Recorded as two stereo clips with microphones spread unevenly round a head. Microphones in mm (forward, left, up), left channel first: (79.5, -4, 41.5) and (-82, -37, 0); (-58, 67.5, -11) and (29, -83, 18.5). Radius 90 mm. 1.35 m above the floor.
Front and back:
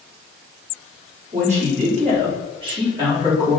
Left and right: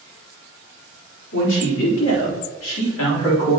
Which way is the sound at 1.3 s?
140° left.